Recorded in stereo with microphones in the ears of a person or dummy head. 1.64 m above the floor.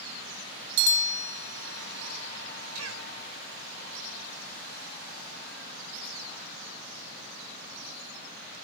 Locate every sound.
2.8 s a cough: 85° right, 8 m